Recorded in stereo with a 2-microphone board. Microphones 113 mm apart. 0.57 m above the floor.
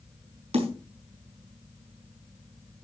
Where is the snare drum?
70° right (ahead or behind), 5 m.